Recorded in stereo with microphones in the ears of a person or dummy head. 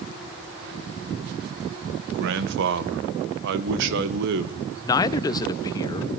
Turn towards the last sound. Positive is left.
turn(degrees=25)  # may be behind; listen again after turning